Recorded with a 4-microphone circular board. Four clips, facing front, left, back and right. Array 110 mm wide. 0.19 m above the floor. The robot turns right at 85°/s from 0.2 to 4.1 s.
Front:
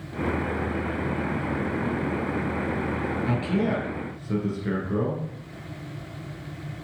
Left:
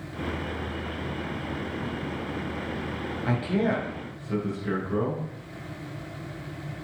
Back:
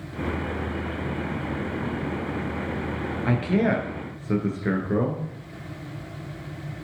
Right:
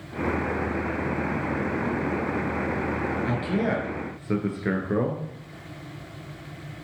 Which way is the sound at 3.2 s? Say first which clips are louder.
Left 3 dB, back 4 dB; 160° left.